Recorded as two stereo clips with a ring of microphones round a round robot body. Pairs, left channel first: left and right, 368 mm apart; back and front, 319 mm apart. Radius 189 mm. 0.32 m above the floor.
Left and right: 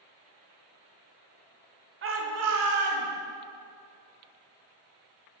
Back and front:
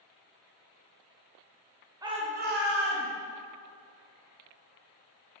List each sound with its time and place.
2.0 s a shout: 70° right, 1.1 m; by 3.1 s 50° right, 2.5 m